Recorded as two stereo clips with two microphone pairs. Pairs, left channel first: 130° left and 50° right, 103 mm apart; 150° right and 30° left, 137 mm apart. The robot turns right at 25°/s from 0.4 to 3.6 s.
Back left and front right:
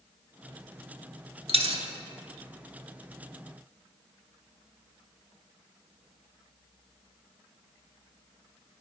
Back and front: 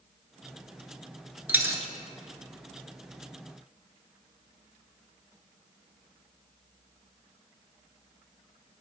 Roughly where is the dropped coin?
Ahead right.